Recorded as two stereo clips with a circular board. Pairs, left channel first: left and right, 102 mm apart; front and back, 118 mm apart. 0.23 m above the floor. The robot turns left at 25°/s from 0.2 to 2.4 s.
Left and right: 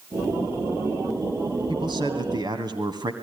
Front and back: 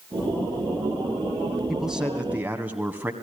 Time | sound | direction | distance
1.7 | a man speaking | 95° right | 1.9 m